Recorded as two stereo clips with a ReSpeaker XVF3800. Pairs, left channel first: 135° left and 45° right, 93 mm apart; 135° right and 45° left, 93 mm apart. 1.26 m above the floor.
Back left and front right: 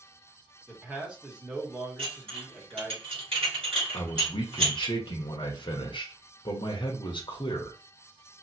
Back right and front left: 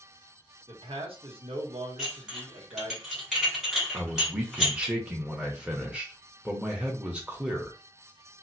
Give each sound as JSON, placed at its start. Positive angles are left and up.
{"t": 0.7, "sound": "a man speaking", "azimuth_deg": 35, "distance_m": 1.3}
{"t": 2.0, "sound": "dishes clattering", "azimuth_deg": -40, "distance_m": 1.9}
{"t": 3.9, "sound": "a man speaking", "azimuth_deg": 120, "distance_m": 0.8}